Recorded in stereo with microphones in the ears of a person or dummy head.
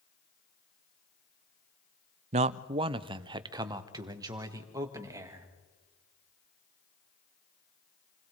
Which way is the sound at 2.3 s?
40° right (ahead or behind).